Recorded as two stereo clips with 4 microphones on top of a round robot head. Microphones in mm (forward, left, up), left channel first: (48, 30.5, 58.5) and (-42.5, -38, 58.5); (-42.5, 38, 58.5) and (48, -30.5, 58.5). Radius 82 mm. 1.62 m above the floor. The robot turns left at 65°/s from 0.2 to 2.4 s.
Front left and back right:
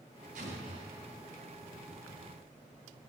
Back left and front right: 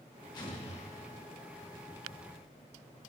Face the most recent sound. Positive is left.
turn(degrees=70)